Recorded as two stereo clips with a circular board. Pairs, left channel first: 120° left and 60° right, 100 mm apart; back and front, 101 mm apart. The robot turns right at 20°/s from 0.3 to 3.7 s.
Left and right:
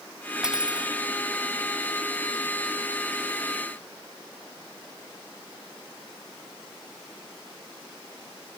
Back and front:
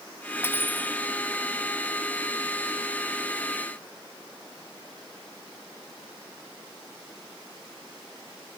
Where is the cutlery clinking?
140° right, 0.6 m; by 0.9 s 130° right, 0.6 m.